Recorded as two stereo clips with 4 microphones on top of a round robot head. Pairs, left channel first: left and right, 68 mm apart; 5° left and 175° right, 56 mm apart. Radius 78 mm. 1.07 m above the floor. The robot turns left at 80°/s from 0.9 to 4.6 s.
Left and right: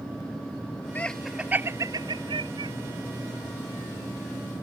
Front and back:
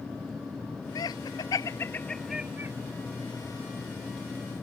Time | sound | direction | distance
0.9 | laughter | 20° left | ?